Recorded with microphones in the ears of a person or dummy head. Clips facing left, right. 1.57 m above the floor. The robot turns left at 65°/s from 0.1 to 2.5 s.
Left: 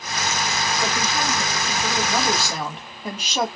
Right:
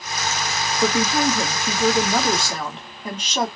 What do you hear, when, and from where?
0.8 s a woman speaking: 80° right, 1.2 m; by 3.5 s 170° left, 1.2 m